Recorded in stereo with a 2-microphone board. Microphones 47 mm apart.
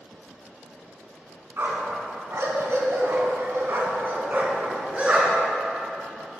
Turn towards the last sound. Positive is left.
turn(degrees=-25)  # may be behind; listen again after turning